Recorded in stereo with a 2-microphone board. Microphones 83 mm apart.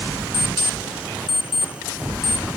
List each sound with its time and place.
0.3 s an alarm clock: 80° left, 2.5 m